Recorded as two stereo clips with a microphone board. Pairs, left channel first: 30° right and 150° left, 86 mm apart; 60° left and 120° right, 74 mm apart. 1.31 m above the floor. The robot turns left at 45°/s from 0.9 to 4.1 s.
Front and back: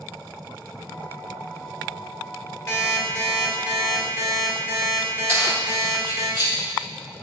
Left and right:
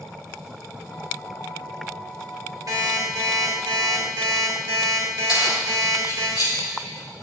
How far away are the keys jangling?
About 4 m.